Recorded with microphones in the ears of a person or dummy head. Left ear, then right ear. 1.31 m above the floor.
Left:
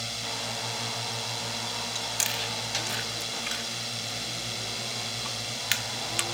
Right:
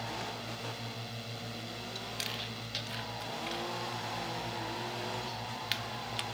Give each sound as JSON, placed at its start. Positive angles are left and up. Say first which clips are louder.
{"t": 0.0, "sound": "a drone", "louder": "left 6 dB", "side_deg": 40}
{"t": 1.9, "sound": "chewing", "louder": "left 7 dB", "side_deg": 35}